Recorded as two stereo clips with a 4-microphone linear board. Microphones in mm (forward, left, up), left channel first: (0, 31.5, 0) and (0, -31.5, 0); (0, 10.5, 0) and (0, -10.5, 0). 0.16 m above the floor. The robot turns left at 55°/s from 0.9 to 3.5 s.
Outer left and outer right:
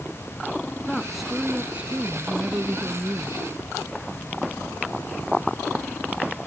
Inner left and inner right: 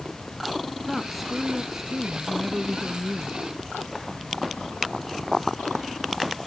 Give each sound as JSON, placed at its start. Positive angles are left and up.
{"t": 0.9, "sound": "a woman speaking", "azimuth_deg": 10}